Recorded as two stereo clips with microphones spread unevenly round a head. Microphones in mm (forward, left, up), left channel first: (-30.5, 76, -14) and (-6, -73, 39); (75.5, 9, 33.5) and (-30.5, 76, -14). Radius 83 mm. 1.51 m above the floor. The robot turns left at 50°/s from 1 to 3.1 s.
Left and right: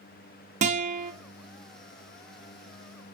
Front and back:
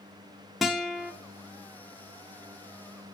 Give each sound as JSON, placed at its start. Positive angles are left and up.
{"t": 0.6, "sound": "a guitar", "azimuth_deg": -130, "distance_m": 0.7}